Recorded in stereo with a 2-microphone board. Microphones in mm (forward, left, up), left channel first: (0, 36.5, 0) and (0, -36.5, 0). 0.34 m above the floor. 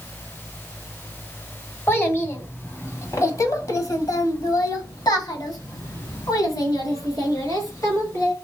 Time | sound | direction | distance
1.9 | a child speaking | 30° left (ahead or behind) | 1.9 m